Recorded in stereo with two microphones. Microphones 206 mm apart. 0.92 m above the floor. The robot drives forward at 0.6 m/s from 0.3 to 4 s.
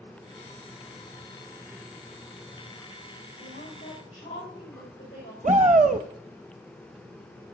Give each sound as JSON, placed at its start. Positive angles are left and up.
{"t": 3.4, "sound": "a woman speaking", "side_deg": 40, "distance_m": 4.0}
{"t": 5.4, "sound": "a shout", "side_deg": -35, "distance_m": 0.8}